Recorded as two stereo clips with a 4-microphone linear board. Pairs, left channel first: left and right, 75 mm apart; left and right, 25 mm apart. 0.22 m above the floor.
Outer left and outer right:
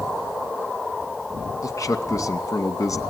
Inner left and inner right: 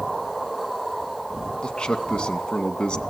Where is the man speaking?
50° left (ahead or behind), 2 m.